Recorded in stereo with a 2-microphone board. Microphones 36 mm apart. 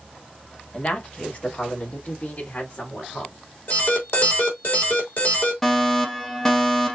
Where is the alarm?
65° left (ahead or behind), 2.5 m.